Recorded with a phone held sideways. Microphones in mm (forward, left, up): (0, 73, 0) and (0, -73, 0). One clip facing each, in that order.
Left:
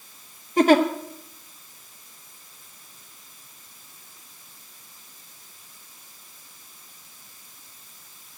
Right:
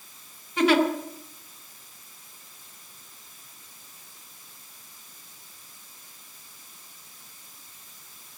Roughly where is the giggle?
Left.